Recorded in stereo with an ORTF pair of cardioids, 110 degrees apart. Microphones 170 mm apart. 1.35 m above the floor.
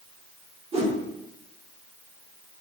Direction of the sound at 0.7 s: 40° right.